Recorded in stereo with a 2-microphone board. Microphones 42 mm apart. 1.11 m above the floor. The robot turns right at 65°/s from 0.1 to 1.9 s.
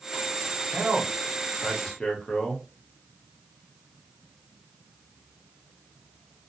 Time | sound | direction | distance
0.7 | a man speaking | 55° right | 1.0 m